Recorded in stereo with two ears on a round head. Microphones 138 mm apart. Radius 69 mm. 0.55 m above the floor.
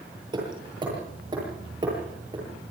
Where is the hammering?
30° right (ahead or behind), 10 m.